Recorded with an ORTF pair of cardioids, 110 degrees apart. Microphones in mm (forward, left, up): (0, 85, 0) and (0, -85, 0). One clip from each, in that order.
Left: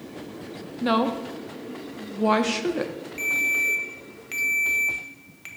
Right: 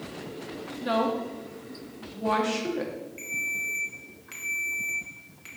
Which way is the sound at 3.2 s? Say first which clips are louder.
Left 8 dB; 35° left.